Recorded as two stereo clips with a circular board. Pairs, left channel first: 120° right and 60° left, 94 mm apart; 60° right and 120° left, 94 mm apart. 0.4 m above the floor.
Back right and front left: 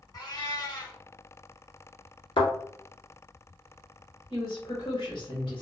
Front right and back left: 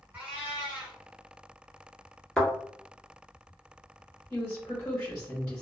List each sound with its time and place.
0.1 s a cat meowing: 170° right, 1.3 m
2.4 s a thud: 145° right, 1.2 m
4.3 s a woman speaking: 125° right, 1.4 m